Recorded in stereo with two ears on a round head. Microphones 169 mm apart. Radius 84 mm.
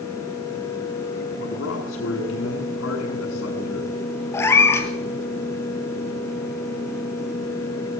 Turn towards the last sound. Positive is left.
turn(degrees=15)  # may be behind; listen again after turning